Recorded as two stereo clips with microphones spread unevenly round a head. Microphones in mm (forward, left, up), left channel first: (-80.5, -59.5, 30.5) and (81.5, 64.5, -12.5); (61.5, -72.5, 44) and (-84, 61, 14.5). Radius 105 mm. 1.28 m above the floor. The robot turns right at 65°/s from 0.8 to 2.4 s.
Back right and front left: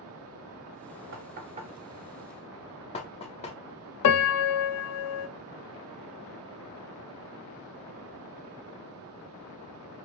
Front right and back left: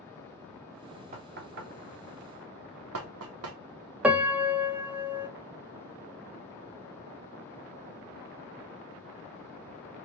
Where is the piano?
145° right, 0.6 m.